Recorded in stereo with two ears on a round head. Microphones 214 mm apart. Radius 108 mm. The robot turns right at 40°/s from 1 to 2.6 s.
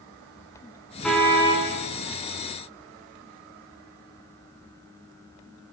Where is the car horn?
5° left (ahead or behind), 8 m; by 1.7 s 30° left (ahead or behind), 8 m.